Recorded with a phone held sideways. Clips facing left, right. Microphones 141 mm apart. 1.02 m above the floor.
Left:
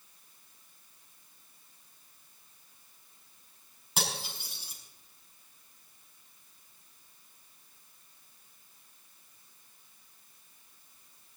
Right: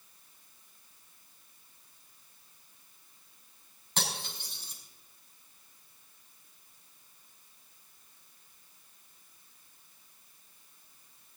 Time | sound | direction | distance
4.0 | cutlery clinking | 10° left (ahead or behind) | 5.5 m